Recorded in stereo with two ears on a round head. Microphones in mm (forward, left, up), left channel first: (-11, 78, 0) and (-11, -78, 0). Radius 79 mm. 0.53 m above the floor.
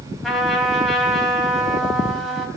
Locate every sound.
0.2 s a trumpet: centre (ahead or behind), 3.5 m